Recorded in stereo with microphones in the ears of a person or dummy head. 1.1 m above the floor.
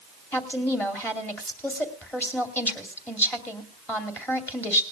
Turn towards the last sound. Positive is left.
turn(degrees=15)  # may be behind; listen again after turning